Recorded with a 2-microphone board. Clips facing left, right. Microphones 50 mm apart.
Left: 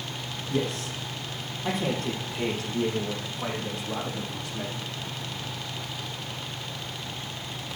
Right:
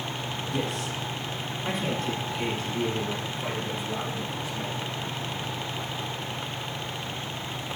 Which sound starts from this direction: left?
A man speaking, at 0.5 s.